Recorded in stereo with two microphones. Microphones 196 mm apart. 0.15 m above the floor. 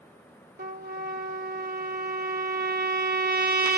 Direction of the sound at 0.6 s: 55° right (ahead or behind).